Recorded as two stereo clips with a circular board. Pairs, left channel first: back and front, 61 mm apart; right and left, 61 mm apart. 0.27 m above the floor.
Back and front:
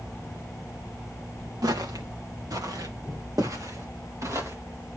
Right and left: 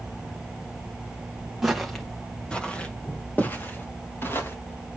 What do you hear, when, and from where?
1.6 s footsteps: 5° left, 2 m; by 4.5 s 40° right, 4 m